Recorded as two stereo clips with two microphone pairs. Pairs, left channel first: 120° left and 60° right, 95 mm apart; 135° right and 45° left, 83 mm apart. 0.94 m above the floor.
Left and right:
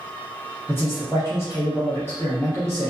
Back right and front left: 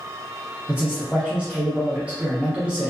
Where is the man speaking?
105° left, 0.7 m.